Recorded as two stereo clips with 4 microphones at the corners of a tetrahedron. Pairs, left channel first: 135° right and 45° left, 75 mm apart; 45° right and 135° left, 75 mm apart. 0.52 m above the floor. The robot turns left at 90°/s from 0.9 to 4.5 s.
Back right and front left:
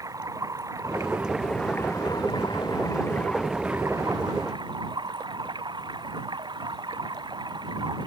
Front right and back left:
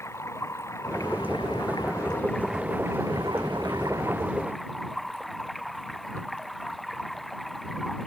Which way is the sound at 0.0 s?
5° left.